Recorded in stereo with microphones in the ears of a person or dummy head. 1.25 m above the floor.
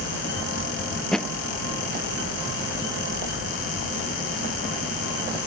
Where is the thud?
5° right (ahead or behind).